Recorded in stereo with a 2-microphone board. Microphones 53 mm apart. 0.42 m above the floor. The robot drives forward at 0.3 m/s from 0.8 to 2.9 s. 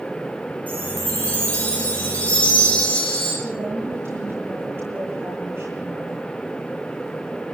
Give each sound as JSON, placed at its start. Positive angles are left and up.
{"t": 0.7, "sound": "a chime", "side_deg": 25, "distance_m": 8.5}
{"t": 3.4, "sound": "a woman speaking", "side_deg": -45, "distance_m": 8.0}